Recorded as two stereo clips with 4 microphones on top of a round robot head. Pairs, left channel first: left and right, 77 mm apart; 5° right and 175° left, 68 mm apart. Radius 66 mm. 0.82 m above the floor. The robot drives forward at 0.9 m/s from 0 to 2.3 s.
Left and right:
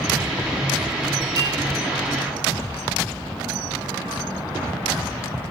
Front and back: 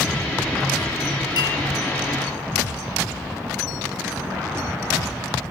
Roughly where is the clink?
Ahead right.